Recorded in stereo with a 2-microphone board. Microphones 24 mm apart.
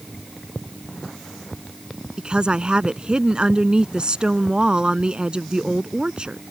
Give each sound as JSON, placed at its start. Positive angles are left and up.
{"t": 2.2, "sound": "a woman speaking", "side_deg": -35}